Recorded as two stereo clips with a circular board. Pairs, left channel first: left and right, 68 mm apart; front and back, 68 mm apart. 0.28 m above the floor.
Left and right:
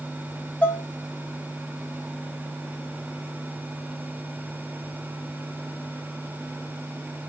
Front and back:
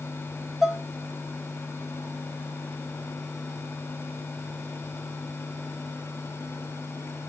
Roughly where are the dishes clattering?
Left.